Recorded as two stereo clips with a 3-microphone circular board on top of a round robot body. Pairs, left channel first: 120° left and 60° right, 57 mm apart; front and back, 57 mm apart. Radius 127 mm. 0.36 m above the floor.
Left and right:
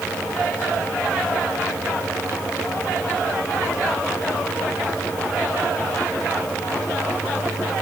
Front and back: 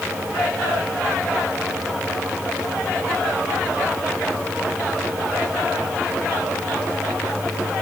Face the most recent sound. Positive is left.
No sound to turn to.